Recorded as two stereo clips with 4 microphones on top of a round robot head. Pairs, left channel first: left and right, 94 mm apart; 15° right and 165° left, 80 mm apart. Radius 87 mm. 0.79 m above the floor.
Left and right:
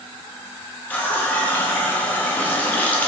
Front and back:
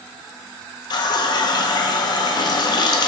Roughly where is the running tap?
Ahead.